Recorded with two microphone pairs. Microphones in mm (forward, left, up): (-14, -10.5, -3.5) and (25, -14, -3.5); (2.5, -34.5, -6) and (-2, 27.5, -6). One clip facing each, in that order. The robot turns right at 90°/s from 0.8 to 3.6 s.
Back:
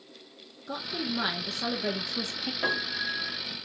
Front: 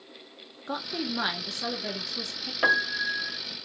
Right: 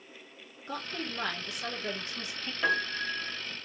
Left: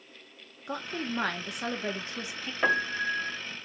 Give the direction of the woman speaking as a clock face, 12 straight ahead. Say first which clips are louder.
Front 1 dB, left 3 dB; 11 o'clock.